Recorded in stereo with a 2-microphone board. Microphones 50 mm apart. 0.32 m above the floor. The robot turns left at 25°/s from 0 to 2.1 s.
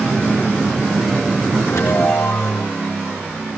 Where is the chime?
80° left, 4 m; by 2.7 s 90° left, 4 m.